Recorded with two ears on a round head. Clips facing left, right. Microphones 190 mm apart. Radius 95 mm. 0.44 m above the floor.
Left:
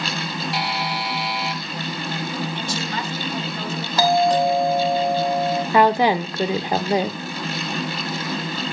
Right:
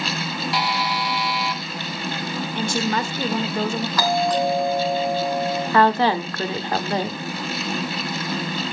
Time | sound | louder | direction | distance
0.5 | a buzzer | right 3 dB | 60° right (ahead or behind) | 1.0 m
2.5 | a woman speaking | right 5 dB | 40° right (ahead or behind) | 1.2 m
4.0 | a doorbell | left 4 dB | 25° left (ahead or behind) | 2.5 m
5.7 | a woman speaking | left 1 dB | 15° left (ahead or behind) | 0.8 m